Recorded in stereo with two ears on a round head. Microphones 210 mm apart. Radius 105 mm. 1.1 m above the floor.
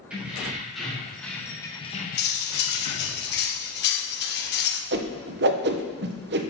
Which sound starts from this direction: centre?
Keys jangling, at 0.1 s.